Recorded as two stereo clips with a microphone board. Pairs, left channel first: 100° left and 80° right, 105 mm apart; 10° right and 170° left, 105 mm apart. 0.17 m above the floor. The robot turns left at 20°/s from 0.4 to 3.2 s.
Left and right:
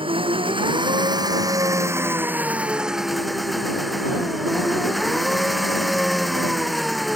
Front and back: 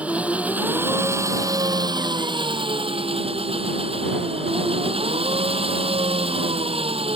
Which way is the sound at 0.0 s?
115° right.